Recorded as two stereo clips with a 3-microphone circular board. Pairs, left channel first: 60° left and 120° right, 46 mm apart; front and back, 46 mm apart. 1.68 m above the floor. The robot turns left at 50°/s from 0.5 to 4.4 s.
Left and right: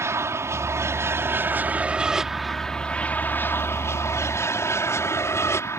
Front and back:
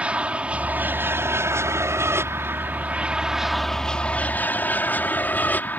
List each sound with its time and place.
0.0 s an aircraft: 115° right; by 5.8 s 50° left